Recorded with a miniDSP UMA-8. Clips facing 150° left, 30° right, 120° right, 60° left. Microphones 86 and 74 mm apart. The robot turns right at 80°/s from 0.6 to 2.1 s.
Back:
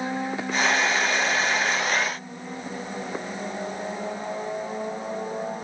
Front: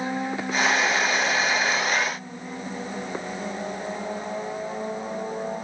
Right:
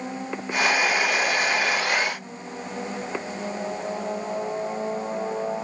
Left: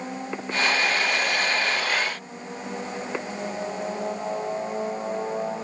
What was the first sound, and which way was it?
Only background noise.